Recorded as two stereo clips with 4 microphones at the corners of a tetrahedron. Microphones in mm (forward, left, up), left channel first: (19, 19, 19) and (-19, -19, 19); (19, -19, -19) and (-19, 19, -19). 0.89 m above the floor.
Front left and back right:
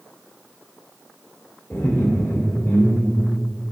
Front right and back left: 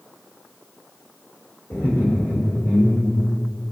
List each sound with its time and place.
1.7 s laughter: 10° right, 2.5 m